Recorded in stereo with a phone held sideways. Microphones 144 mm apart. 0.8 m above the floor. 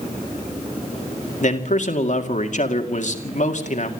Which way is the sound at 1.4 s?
55° left (ahead or behind).